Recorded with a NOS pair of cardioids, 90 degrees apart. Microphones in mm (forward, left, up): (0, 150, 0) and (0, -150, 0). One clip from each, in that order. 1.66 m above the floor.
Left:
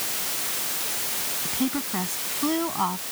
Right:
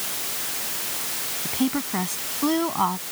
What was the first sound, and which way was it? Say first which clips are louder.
A woman speaking: right 4 dB; 25° right.